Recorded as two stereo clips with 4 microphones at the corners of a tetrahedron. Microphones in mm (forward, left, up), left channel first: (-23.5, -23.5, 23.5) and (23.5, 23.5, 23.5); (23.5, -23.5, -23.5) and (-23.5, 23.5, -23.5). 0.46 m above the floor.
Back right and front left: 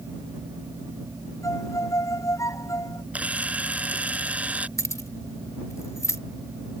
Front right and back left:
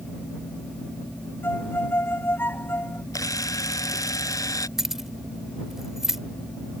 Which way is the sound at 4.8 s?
145° right.